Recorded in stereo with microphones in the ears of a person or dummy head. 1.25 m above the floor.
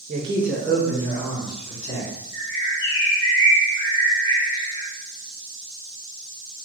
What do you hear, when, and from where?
0.1 s a man speaking: 30° right (ahead or behind), 0.7 m; by 2.1 s 40° left (ahead or behind), 2 m
2.3 s a bird: 20° left (ahead or behind), 0.9 m